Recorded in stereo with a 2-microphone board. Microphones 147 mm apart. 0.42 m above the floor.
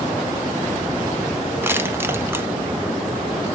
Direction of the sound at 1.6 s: 15° right (ahead or behind).